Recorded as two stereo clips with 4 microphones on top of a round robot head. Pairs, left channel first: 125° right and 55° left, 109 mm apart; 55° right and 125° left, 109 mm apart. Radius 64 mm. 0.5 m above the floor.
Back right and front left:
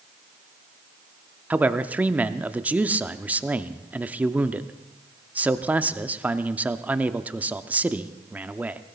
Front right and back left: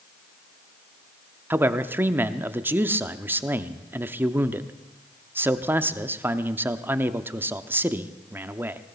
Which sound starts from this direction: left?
A man speaking, at 1.5 s.